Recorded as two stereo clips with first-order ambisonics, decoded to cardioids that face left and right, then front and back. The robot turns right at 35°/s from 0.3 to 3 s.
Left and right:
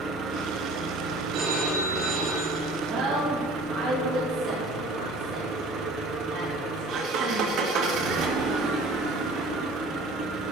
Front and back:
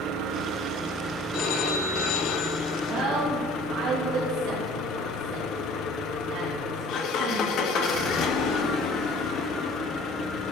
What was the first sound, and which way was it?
An engine running, 145° right.